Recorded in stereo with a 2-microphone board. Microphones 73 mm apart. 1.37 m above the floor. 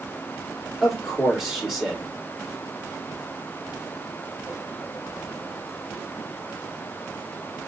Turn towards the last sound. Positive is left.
turn(degrees=-5)  # may be behind; listen again after turning